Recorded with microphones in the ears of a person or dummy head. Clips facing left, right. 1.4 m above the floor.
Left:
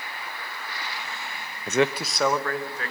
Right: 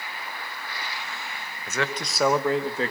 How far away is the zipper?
I don't hear a zipper.